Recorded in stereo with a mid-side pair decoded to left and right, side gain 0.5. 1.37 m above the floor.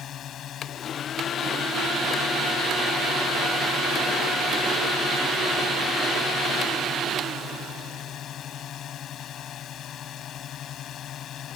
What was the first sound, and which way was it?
A drone, 60° left.